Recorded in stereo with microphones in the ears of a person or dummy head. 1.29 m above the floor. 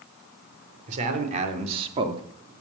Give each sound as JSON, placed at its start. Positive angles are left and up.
{"t": 0.9, "sound": "a man speaking", "side_deg": -40, "distance_m": 4.0}